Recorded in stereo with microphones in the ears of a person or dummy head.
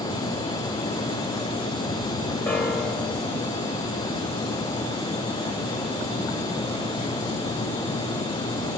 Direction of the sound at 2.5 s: Centre (ahead or behind).